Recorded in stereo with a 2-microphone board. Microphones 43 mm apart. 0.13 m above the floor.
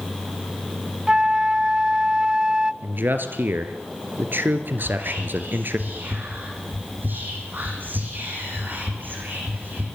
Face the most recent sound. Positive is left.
turn(degrees=-50)  # may be behind; listen again after turning